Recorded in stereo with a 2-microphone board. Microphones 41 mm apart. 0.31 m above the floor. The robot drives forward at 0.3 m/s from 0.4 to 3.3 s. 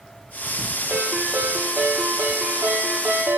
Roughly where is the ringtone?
Right.